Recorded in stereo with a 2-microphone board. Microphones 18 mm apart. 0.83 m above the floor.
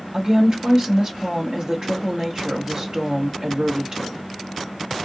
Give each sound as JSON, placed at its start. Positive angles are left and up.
{"t": 0.1, "sound": "a woman speaking", "side_deg": -45, "distance_m": 1.4}